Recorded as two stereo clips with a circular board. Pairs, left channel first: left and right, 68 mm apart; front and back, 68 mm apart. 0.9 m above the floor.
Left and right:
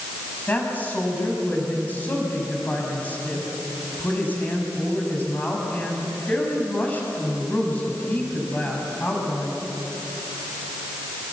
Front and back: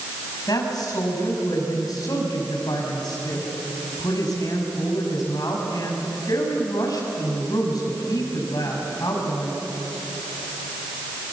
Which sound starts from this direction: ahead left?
A woman speaking, at 0.5 s.